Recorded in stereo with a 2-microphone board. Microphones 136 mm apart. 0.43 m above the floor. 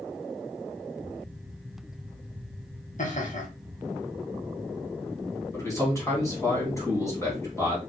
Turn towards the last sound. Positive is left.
turn(degrees=20)  # may be behind; listen again after turning